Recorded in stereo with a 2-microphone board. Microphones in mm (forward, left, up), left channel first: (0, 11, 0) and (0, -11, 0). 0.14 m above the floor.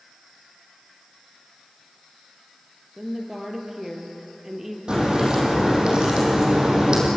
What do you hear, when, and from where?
3.0 s a woman speaking: 10° right (ahead or behind), 3.5 m
4.9 s a crack: 35° right (ahead or behind), 5 m